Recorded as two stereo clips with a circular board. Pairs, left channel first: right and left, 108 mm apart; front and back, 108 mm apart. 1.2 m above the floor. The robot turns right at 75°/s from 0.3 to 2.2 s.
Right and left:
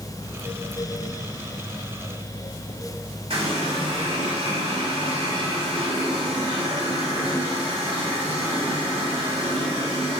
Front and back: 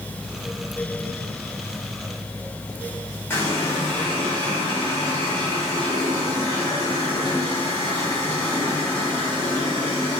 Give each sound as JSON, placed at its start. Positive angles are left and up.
{"t": 3.3, "sound": "a running tap", "azimuth_deg": 70, "distance_m": 3.0}